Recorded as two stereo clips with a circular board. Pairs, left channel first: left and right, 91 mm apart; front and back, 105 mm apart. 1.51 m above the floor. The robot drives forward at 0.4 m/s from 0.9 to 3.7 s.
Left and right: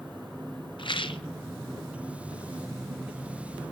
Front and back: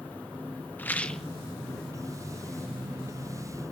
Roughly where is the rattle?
Left.